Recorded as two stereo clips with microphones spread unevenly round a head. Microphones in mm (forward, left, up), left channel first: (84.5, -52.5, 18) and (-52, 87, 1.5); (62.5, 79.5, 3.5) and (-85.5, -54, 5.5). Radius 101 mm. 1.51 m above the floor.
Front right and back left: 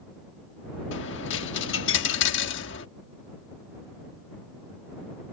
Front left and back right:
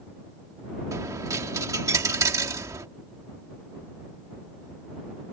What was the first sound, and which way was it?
A dropped coin, 65° right.